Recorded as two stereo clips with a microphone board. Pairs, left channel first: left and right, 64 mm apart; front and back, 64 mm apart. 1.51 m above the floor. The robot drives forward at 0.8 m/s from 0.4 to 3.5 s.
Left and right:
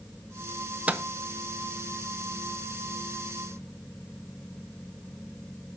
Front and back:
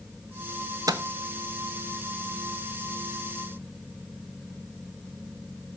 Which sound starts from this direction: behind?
A microwave, at 0.9 s.